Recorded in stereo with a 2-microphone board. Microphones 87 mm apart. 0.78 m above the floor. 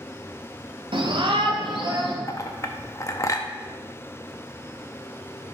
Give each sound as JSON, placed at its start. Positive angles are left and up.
{"t": 0.9, "sound": "a shout", "side_deg": -70, "distance_m": 1.4}
{"t": 2.3, "sound": "a clink", "side_deg": 35, "distance_m": 0.7}